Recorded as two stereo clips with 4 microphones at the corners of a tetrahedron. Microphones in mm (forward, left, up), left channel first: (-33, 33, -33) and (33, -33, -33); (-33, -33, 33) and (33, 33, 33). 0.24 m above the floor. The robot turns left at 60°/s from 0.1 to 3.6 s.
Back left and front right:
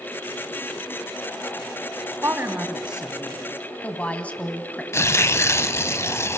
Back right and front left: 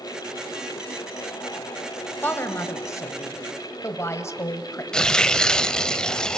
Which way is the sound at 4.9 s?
150° left.